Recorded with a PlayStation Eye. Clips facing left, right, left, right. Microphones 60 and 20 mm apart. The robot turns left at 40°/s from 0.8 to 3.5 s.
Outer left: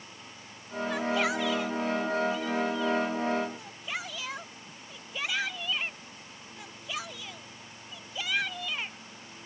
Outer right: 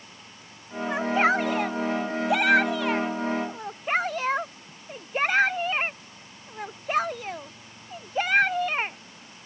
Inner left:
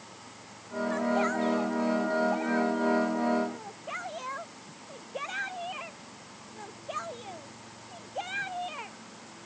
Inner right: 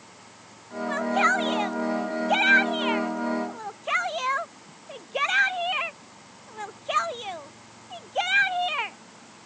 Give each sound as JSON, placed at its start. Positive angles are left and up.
{"t": 0.9, "sound": "a shout", "side_deg": -25}